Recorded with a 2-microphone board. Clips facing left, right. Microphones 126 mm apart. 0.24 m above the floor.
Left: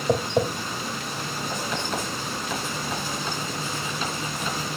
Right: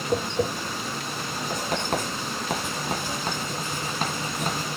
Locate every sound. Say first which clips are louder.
0.1 s tapping: left 3 dB; 65° left (ahead or behind), 3.5 m
1.5 s writing: right 3 dB; 50° right (ahead or behind), 2.5 m